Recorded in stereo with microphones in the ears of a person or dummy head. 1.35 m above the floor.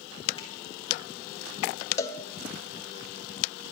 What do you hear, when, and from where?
0.4 s a finger snap: 30° left (ahead or behind), 2.5 m
2.0 s a cowbell: 20° left (ahead or behind), 0.6 m